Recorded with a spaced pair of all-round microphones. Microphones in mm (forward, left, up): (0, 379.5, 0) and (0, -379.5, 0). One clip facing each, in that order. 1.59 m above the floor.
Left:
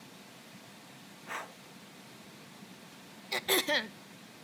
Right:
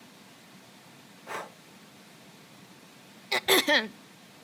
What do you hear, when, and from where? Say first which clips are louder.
1.3 s breathing: right 7 dB; 60° right (ahead or behind), 0.9 m
3.3 s throat clearing: right 7 dB; 75° right (ahead or behind), 0.5 m